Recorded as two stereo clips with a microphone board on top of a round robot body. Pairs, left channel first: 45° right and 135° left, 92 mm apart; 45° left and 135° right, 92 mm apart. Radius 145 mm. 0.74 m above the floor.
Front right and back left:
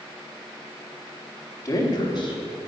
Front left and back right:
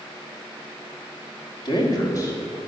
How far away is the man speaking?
About 1.9 m.